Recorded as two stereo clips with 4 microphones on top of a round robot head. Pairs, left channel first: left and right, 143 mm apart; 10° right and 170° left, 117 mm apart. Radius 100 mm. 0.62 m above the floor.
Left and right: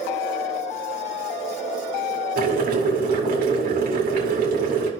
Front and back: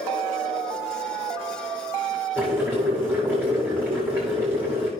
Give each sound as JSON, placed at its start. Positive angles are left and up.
{"t": 2.4, "sound": "boiling", "azimuth_deg": -110, "distance_m": 2.5}